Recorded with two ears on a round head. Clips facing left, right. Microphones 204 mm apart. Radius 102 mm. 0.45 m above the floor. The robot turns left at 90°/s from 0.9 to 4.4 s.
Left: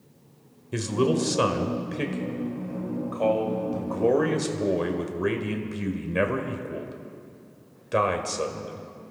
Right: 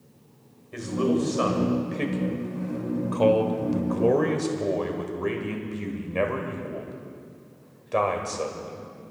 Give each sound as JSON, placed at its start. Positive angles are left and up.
{"t": 0.7, "sound": "a man speaking", "azimuth_deg": 110, "distance_m": 1.4}